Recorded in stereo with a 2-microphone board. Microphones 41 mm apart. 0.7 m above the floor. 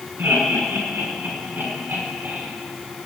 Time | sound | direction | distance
0.2 | laughter | 65° right (ahead or behind) | 8.5 m